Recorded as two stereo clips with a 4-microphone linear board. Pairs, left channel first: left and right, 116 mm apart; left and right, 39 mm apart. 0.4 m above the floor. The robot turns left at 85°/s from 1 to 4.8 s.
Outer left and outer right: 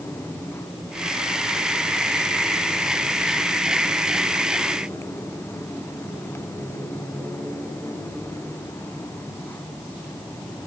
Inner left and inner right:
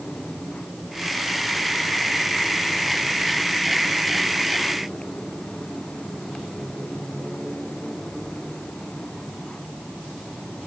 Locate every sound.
Only background noise.